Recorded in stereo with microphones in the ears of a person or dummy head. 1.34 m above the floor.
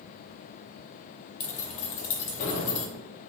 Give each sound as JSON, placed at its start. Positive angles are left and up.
{"t": 1.4, "sound": "keys jangling", "side_deg": 40, "distance_m": 0.6}